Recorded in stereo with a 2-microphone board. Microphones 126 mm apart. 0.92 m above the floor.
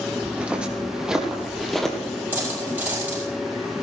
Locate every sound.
0.2 s footsteps: 10° right (ahead or behind), 2.5 m; by 2.0 s 5° left (ahead or behind), 1.9 m
2.3 s a dropped coin: 15° right (ahead or behind), 6.5 m